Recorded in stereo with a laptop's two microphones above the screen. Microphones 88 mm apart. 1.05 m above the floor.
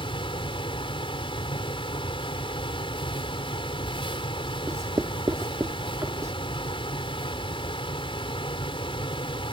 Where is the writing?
40° right (ahead or behind).